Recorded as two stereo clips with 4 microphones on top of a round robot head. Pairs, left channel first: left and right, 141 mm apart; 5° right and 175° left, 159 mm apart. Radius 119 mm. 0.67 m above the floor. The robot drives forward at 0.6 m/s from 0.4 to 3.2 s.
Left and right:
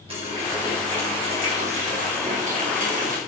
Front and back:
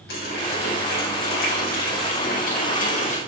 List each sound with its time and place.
0.1 s a running tap: 30° right, 3 m; by 3.2 s 55° right, 2.0 m